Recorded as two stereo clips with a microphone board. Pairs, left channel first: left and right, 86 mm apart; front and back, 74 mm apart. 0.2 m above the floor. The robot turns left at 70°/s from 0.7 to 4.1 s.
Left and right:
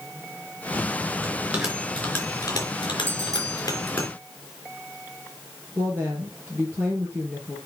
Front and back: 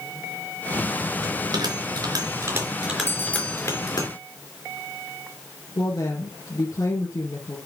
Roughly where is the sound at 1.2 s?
Behind right.